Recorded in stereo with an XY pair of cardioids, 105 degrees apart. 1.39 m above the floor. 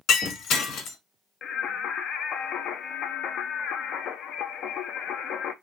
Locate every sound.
0.1 s breaking glass: 70° left, 1.8 m
1.4 s singing: 70° left, 0.8 m